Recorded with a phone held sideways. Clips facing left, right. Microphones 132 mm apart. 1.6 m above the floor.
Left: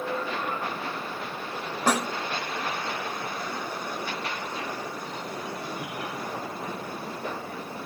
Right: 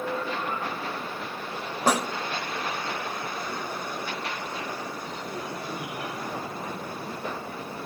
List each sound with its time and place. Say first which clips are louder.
1.9 s a snare drum: right 1 dB; 10° right (ahead or behind), 0.9 m